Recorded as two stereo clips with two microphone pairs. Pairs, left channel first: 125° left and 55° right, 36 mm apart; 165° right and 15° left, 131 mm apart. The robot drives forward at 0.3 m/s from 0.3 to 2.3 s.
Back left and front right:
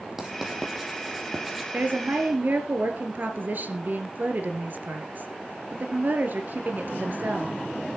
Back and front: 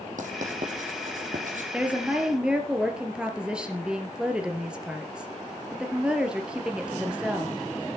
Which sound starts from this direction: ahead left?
Writing, at 0.2 s.